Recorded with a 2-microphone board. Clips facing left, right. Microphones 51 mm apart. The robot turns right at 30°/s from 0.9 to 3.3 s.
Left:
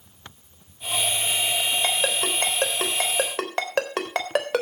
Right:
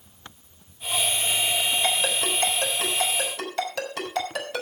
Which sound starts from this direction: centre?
A ringtone, at 1.8 s.